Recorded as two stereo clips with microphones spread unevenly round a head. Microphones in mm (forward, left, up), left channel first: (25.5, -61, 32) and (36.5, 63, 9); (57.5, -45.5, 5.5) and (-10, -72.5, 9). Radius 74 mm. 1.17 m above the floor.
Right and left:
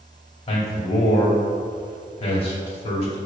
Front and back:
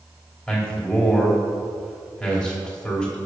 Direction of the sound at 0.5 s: 55° right.